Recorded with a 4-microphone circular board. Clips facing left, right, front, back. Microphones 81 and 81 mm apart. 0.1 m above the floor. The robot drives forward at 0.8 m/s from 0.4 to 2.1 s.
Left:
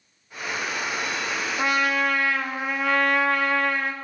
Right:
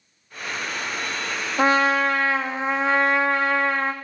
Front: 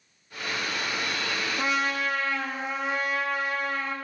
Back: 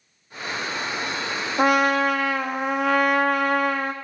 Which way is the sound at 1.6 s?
145° right.